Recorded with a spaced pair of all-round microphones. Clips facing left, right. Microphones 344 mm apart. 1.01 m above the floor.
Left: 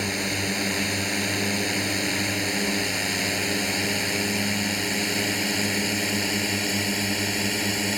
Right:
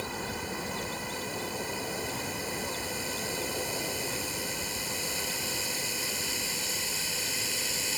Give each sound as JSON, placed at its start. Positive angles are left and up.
{"t": 0.0, "sound": "a drone", "side_deg": 85}